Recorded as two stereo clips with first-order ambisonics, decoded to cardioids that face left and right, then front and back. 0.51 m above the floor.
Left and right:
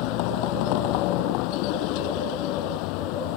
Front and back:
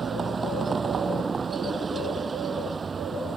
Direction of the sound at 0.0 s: 105° left.